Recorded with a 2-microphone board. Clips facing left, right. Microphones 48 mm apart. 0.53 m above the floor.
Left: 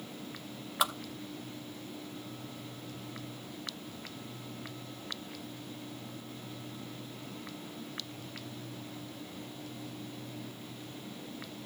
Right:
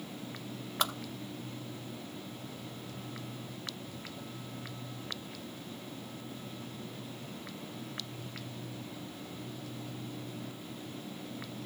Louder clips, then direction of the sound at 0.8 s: Left 2 dB; 5° left (ahead or behind).